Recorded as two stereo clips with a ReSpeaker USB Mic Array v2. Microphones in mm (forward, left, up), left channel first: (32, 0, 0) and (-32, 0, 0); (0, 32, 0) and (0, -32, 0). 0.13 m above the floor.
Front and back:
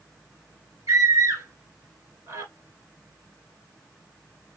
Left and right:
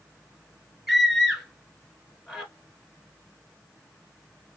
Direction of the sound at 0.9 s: 175° right.